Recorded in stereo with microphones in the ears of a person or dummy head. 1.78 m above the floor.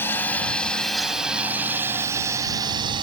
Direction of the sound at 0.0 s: 10° left (ahead or behind).